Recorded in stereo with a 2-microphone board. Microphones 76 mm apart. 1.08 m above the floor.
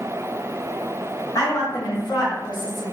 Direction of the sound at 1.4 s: 50° left (ahead or behind).